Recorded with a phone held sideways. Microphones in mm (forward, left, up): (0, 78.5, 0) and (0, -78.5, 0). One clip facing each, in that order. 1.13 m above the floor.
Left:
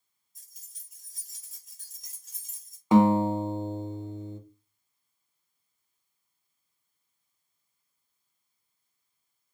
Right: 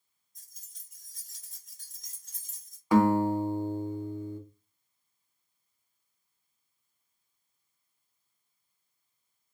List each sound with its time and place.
0.3 s keys jangling: 5° left (ahead or behind), 1.6 m
2.9 s a guitar: 20° left (ahead or behind), 0.7 m